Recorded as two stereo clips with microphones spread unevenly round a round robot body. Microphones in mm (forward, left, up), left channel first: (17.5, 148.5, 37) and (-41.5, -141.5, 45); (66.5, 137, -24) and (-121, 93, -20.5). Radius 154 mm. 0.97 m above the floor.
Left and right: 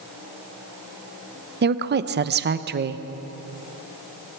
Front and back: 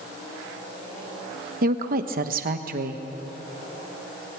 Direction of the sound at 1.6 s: 145° right.